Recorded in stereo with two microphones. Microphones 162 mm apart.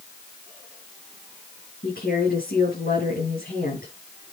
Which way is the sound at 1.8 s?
75° left (ahead or behind).